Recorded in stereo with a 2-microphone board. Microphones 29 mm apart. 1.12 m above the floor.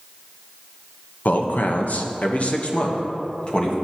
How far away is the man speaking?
About 1.1 m.